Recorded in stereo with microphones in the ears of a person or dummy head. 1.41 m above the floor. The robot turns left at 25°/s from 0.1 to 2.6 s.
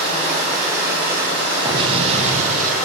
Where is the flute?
I don't hear a flute.